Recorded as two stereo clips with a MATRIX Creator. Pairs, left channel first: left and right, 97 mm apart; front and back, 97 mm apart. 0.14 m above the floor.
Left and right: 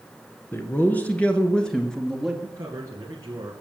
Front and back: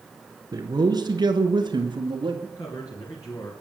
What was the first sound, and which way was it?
A man speaking, 150° left.